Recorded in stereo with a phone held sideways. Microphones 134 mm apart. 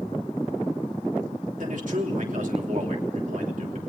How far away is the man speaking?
About 3 m.